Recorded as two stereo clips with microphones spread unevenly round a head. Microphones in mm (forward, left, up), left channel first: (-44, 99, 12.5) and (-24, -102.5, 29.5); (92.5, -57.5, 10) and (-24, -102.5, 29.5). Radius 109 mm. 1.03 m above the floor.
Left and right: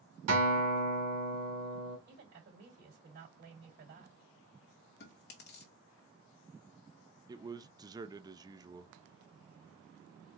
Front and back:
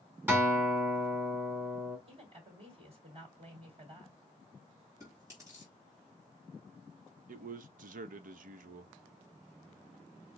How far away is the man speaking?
About 0.6 m.